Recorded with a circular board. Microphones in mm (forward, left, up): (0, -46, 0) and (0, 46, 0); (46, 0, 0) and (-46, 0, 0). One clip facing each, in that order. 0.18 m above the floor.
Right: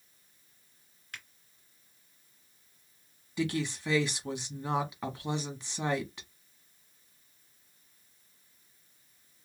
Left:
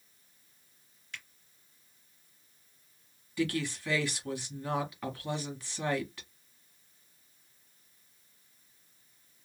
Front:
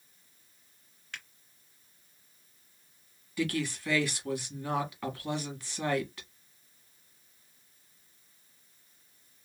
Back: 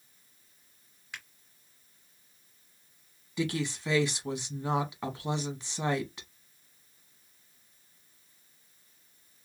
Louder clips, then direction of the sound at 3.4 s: Even, even; 135° right.